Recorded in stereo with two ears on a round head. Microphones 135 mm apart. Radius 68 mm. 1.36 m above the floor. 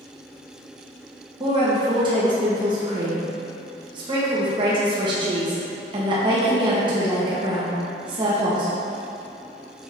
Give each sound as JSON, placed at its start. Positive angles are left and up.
{"t": 1.4, "sound": "a woman speaking", "side_deg": -30, "distance_m": 1.3}